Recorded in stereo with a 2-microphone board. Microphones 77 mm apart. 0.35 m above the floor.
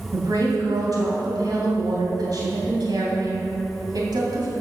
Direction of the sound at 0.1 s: 60° right (ahead or behind).